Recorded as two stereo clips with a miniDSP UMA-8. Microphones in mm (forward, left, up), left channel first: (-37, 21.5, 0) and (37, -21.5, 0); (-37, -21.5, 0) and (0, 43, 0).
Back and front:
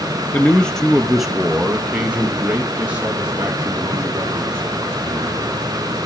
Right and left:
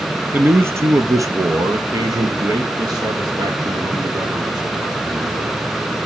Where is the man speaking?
100° left, 1.3 m; by 5.6 s 35° left, 5 m.